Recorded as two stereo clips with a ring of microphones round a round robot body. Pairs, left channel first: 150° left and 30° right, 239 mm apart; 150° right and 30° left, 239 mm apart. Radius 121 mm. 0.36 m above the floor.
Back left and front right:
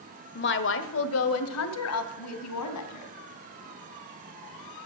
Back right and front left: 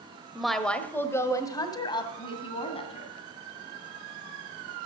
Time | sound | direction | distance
0.3 | a woman speaking | 115° left | 1.2 m